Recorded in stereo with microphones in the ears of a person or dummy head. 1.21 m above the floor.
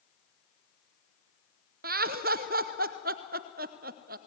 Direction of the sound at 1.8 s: 50° right (ahead or behind).